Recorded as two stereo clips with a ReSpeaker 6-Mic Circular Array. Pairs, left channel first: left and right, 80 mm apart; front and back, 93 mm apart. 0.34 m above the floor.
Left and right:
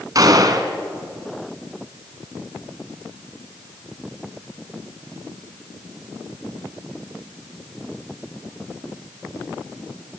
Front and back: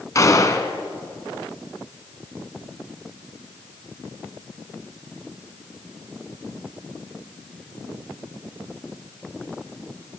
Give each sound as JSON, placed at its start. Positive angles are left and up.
{"t": 0.1, "sound": "a gunshot", "azimuth_deg": -50, "distance_m": 1.6}